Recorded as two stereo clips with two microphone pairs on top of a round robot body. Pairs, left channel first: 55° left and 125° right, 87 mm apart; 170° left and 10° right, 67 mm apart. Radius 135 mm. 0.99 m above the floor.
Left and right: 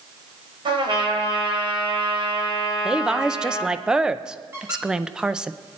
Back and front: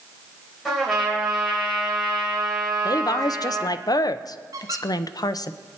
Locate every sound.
0.7 s a trumpet: 105° right, 4.5 m
2.9 s a woman speaking: 160° left, 0.7 m
4.5 s a squeak: 40° right, 0.9 m